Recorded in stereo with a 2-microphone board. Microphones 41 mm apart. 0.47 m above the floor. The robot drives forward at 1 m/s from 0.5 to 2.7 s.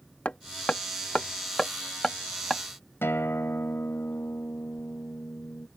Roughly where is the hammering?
Left.